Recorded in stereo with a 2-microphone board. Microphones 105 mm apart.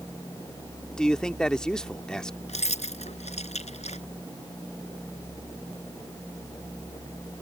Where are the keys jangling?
80° left.